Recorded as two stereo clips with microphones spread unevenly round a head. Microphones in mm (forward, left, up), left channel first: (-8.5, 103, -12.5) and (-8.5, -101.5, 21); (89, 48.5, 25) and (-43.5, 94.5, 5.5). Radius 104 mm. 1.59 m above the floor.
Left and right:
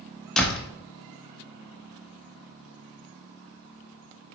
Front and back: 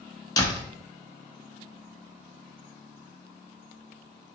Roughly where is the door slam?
Ahead.